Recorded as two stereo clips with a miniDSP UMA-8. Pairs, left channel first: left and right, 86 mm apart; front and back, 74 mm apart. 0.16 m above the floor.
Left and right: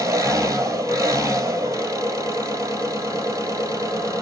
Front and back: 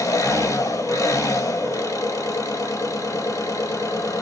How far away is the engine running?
About 1.4 m.